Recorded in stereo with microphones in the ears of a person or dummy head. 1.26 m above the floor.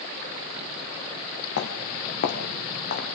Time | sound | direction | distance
1.6 | footsteps | 60° left (ahead or behind) | 3 m